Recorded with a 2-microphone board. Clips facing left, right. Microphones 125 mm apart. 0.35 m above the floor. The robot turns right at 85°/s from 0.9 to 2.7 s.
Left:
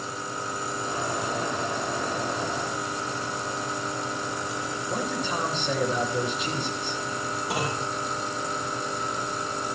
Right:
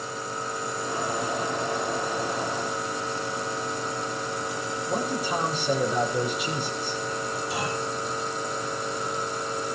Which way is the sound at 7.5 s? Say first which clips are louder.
Left 2 dB; 70° left (ahead or behind).